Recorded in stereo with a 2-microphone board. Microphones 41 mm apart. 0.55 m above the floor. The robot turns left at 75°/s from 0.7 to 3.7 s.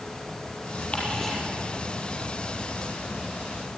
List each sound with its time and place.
0.9 s ticking: 30° left (ahead or behind), 7 m; by 1.3 s centre (ahead or behind), 7 m